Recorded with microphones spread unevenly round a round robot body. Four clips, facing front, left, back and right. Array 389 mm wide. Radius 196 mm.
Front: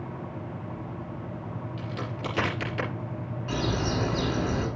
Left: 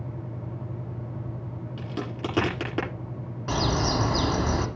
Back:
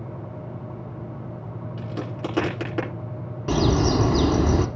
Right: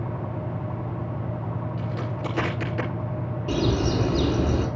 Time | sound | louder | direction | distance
1.8 | a crack | right 2 dB, back 5 dB | 90° left | 8 m
3.5 | a bird | right 2 dB, back 8 dB | 170° right | 0.9 m